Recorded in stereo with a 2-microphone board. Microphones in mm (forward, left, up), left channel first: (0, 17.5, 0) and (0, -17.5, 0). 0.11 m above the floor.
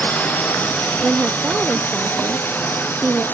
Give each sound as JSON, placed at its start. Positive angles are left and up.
{"t": 0.0, "sound": "a drone", "side_deg": 50}
{"t": 1.0, "sound": "a woman speaking", "side_deg": -35}